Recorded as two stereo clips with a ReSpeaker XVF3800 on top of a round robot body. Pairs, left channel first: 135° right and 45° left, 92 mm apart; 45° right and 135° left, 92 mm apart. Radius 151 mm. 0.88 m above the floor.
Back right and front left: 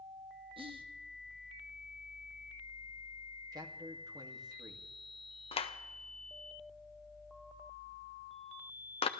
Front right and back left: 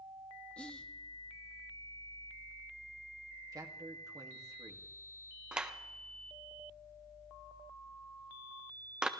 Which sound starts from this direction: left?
A man speaking, at 3.5 s.